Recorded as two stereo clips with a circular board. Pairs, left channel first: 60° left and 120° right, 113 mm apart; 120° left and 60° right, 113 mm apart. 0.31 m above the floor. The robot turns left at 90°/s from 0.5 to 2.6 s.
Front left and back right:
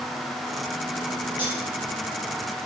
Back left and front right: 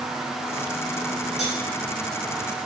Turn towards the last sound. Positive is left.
turn(degrees=-5)